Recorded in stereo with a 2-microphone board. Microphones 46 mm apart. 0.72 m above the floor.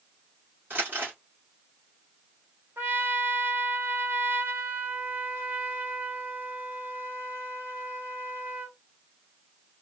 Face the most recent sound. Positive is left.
turn(degrees=-45)  # may be behind; listen again after turning